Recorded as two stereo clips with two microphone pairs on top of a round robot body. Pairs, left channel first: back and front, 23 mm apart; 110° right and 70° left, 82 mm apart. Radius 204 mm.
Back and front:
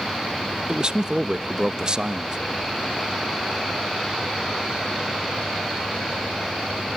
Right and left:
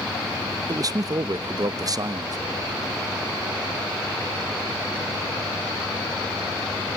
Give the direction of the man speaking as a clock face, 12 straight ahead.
11 o'clock.